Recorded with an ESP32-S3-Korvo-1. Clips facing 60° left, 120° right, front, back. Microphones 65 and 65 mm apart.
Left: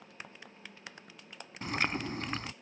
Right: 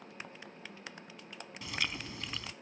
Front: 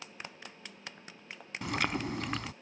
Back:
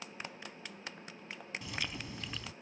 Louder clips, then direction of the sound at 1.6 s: Left 6 dB, front 11 dB; 15° left.